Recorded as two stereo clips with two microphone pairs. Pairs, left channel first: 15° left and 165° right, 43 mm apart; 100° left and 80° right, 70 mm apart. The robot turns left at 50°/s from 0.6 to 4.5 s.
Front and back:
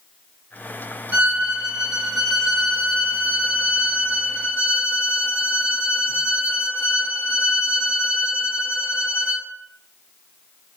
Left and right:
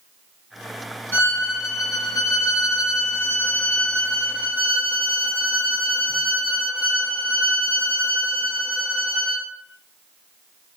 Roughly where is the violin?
Behind left.